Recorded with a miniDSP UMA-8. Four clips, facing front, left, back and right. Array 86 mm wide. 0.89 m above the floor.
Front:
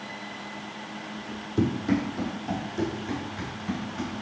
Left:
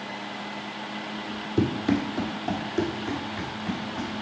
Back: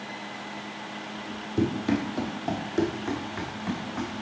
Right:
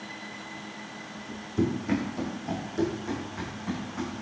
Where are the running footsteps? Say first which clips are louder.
Left 3 dB, front 1 dB; 90° left, 1.3 m; by 4.1 s 165° left, 4 m.